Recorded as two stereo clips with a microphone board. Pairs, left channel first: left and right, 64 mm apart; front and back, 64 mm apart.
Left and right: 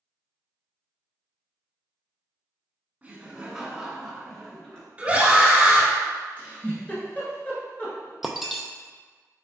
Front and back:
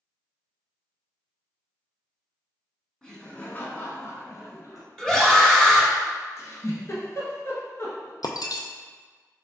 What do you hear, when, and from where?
3.0 s laughter: 65° right, 1.0 m; by 4.9 s 10° left, 1.8 m
5.0 s a scream: 65° right, 1.1 m
6.4 s a giggle: 30° left, 1.4 m
8.2 s breaking glass: 5° right, 0.5 m